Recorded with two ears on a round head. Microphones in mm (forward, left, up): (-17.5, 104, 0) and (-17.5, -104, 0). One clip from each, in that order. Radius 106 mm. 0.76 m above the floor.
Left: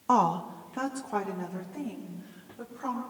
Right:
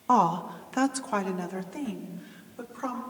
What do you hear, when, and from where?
0.1 s a woman speaking: 10° left (ahead or behind), 0.6 m; by 3.0 s 80° right, 3.5 m